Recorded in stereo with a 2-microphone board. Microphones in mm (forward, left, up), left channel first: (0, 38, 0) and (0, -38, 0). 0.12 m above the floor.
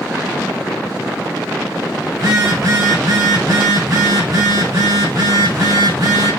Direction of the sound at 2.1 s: 65° right (ahead or behind).